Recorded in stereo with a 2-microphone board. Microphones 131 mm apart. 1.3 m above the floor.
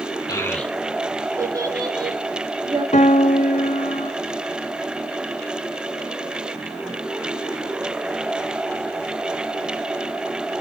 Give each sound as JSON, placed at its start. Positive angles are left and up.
{"t": 0.3, "sound": "a child speaking", "side_deg": 30, "distance_m": 0.9}
{"t": 2.9, "sound": "a piano", "side_deg": 60, "distance_m": 0.8}